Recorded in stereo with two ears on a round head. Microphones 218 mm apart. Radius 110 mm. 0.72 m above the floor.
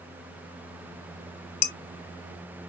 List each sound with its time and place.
1.6 s dishes clattering: 40° left (ahead or behind), 1.7 m